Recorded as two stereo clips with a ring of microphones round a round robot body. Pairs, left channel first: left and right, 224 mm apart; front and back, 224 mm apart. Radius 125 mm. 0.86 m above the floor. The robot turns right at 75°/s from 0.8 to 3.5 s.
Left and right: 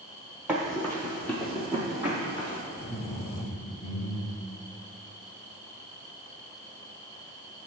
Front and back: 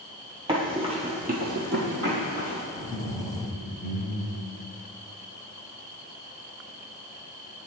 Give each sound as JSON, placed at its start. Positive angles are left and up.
{"t": 0.5, "sound": "running footsteps", "azimuth_deg": -165, "distance_m": 0.9}
{"t": 2.7, "sound": "laughter", "azimuth_deg": -25, "distance_m": 1.7}